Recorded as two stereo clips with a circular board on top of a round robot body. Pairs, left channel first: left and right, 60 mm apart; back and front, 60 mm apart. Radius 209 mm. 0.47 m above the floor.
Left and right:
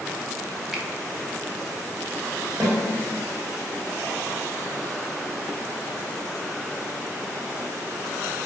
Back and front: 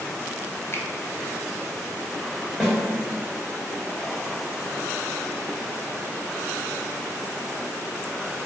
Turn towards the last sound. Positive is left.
turn(degrees=-80)